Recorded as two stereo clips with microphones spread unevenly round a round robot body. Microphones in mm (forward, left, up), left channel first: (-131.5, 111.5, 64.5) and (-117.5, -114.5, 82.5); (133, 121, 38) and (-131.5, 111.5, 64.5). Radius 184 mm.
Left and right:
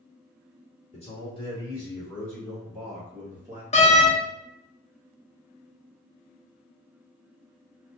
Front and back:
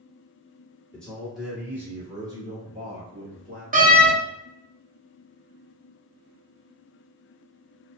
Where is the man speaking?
75° left, 1.7 m; by 3.6 s 150° right, 1.6 m.